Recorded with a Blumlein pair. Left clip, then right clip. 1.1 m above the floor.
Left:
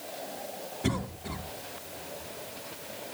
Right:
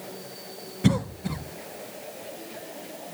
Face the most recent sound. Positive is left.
turn(degrees=-20)